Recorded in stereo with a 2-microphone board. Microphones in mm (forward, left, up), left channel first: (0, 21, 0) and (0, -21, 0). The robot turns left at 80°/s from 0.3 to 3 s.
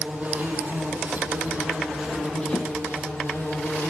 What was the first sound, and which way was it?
An insect, 30° right.